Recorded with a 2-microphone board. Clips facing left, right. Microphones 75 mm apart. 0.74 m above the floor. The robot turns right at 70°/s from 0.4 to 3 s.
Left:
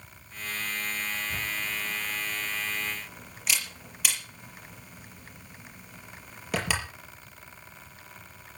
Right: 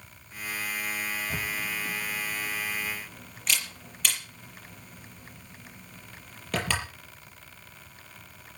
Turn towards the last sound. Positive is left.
turn(degrees=5)  # may be behind; listen again after turning